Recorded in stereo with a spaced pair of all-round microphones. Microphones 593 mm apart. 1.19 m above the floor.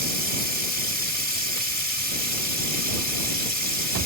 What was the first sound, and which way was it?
Running water, 60° left (ahead or behind).